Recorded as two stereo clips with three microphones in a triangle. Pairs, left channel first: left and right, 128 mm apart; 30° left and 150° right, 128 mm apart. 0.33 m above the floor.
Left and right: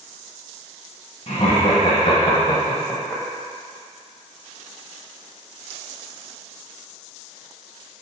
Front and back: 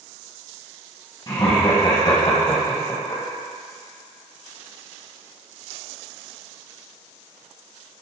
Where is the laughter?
75° left, 1.9 m; by 3.2 s 35° left, 1.4 m.